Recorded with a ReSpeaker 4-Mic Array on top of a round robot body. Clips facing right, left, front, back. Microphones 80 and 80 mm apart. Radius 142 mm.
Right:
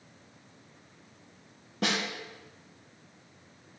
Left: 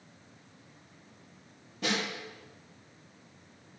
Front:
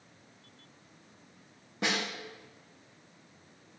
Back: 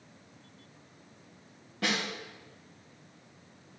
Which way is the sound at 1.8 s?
70° right.